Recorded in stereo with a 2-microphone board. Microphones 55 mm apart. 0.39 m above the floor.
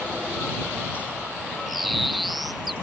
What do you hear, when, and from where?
1.7 s a bird: centre (ahead or behind)